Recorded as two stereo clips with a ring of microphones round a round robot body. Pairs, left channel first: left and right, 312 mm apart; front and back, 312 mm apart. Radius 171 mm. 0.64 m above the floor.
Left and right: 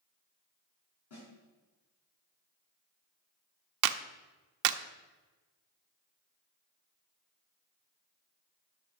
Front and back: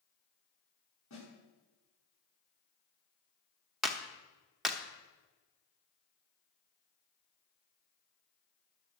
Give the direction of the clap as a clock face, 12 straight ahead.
3 o'clock.